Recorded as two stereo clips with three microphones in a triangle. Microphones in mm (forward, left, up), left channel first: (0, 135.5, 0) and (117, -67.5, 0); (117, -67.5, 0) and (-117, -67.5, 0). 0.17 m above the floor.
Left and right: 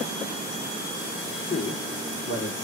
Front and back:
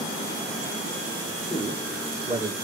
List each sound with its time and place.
1.5 s a man speaking: 115° left, 6.5 m; by 2.5 s 105° left, 7 m